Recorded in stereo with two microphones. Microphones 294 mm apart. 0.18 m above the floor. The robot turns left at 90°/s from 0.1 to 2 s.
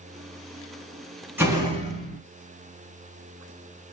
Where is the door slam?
5° right (ahead or behind), 0.8 m; by 2.2 s 25° right (ahead or behind), 0.8 m.